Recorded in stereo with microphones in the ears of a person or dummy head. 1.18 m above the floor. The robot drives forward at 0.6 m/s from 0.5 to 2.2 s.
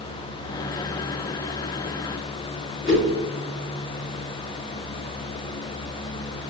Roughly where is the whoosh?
Left.